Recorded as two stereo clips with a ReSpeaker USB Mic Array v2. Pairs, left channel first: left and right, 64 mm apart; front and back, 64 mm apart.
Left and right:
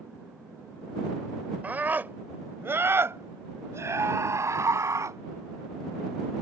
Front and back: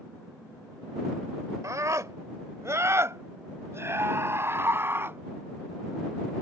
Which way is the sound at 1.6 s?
155° right.